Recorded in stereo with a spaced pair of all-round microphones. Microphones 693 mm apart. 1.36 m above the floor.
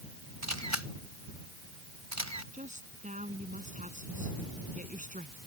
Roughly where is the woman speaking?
Centre.